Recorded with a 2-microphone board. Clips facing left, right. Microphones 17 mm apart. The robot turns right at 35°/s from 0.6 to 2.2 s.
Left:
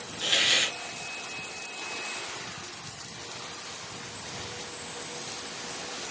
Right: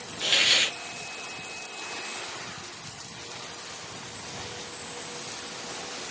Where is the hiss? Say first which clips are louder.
Right 2 dB; 5° right (ahead or behind), 1.6 m.